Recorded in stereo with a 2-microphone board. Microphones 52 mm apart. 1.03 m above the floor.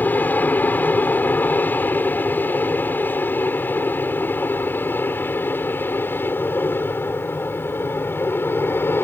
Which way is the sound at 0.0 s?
35° left (ahead or behind).